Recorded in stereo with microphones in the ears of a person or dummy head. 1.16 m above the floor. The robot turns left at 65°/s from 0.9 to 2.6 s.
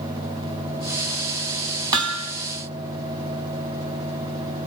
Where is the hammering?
25° right (ahead or behind), 2 m; by 2.3 s 50° right (ahead or behind), 2 m.